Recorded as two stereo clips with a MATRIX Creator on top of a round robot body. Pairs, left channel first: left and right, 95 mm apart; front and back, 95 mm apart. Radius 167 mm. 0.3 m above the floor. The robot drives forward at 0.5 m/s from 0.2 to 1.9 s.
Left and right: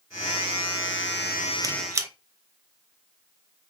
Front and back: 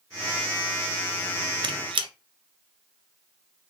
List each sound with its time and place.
1.6 s a squeak: 145° right, 0.5 m; by 2.1 s 150° right, 0.6 m